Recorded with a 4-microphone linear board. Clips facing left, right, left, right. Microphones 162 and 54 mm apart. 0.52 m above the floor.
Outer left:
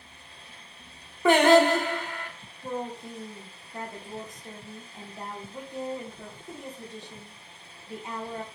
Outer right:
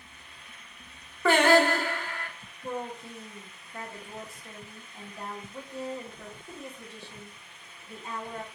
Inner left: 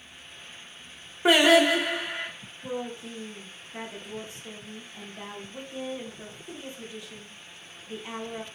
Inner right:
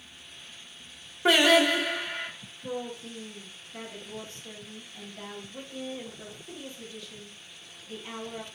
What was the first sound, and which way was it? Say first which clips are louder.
Singing: outer left 3 dB, inner left 2 dB; 15° left (ahead or behind).